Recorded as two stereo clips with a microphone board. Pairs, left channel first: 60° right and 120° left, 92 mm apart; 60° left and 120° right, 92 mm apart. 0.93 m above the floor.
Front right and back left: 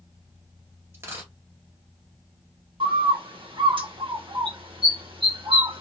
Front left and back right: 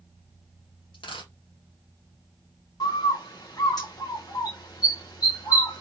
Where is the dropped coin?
60° left, 1.9 m.